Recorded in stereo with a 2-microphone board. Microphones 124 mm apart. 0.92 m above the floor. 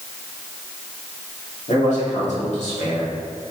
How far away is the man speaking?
About 2.5 m.